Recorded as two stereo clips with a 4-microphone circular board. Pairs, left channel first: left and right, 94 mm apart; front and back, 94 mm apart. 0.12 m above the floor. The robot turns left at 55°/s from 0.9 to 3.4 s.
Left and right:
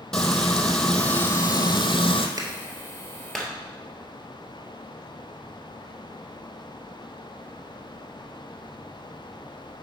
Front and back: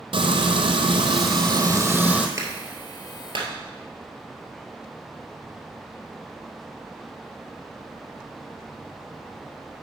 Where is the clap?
130° right, 1.7 m; by 3.5 s 175° left, 1.7 m.